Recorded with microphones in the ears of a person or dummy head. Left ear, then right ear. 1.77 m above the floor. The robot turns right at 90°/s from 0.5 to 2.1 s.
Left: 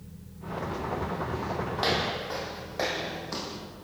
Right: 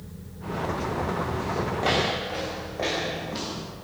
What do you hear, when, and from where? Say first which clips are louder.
1.8 s footsteps: right 3 dB; 55° left (ahead or behind), 5 m; by 3.6 s 75° left (ahead or behind), 6 m